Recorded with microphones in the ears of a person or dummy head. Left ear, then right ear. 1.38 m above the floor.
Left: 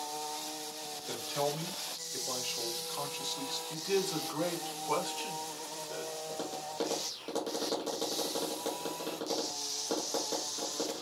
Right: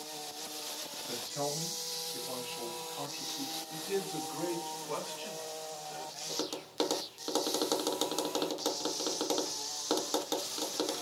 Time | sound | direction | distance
1.1 | a man speaking | 80° left | 1.6 m
3.7 | a man speaking | 80° left | 1.3 m
6.3 | tapping | 50° right (ahead or behind) | 0.9 m